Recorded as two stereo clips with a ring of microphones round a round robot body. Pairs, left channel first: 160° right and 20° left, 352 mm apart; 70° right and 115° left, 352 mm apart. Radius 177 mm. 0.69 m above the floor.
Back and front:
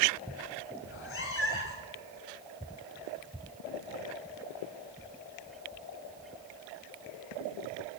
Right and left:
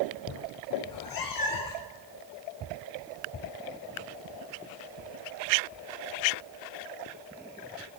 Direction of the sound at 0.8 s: 100° right.